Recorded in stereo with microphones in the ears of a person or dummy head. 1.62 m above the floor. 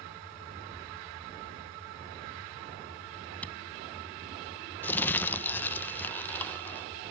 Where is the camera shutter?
5° left (ahead or behind).